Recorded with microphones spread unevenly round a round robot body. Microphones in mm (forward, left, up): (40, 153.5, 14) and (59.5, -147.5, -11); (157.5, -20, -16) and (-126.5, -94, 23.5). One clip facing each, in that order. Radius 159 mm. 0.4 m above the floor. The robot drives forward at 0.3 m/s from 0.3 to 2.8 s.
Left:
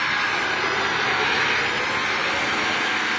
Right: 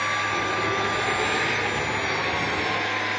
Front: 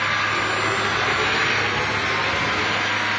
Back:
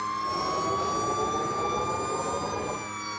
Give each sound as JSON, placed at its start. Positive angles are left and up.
{"t": 0.0, "sound": "an engine running", "azimuth_deg": 30}